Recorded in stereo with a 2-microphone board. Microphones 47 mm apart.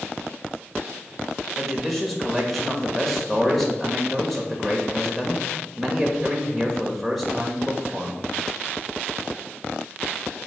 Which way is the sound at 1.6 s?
5° left (ahead or behind).